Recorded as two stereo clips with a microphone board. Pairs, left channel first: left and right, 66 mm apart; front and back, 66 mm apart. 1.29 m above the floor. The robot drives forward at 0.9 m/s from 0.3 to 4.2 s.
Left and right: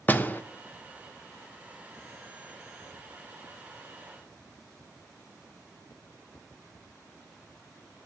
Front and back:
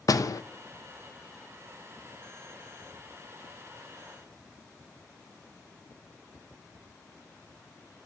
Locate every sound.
0.1 s a door slam: 25° left, 0.8 m; by 0.4 s 30° left, 0.7 m